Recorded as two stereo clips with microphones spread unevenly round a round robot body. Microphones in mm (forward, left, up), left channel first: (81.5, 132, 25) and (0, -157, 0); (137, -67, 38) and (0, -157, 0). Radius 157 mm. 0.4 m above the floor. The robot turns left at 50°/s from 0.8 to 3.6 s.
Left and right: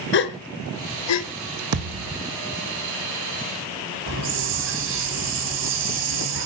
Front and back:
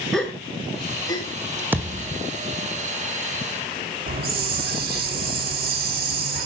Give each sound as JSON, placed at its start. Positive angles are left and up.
{"t": 0.1, "sound": "a gasp", "azimuth_deg": 130, "distance_m": 1.0}
{"t": 1.7, "sound": "a thud", "azimuth_deg": -65, "distance_m": 1.4}
{"t": 4.1, "sound": "a hiss", "azimuth_deg": -155, "distance_m": 3.0}